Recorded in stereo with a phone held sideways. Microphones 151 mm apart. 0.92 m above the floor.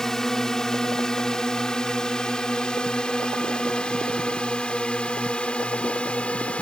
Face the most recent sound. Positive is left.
turn(degrees=10)  # may be behind; listen again after turning